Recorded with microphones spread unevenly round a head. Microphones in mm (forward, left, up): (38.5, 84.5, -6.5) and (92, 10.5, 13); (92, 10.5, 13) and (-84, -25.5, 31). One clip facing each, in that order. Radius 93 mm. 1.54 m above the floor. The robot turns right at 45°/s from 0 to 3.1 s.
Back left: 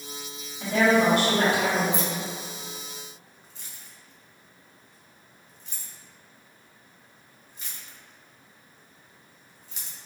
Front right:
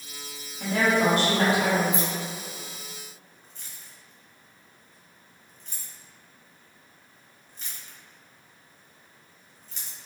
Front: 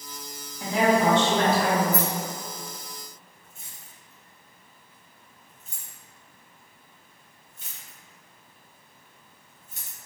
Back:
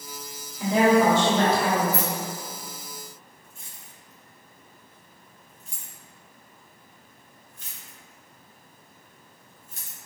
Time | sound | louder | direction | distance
0.6 | a woman speaking | back left 2 dB, back 3 dB | 140° right | 1.2 m
1.9 | keys jangling | even, front 1 dB | 15° right | 1.3 m